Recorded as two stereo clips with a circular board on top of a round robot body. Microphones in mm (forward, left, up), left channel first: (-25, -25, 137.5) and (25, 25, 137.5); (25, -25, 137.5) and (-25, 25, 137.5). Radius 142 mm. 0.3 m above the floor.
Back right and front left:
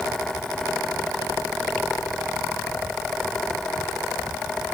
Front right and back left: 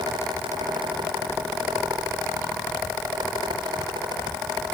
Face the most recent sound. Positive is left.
No sound to turn to.